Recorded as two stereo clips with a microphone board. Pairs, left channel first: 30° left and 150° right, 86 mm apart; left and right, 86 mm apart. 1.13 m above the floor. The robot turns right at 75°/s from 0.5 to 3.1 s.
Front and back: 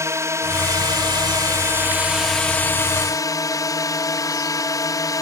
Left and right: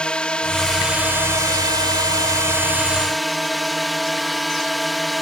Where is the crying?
No crying in this recording.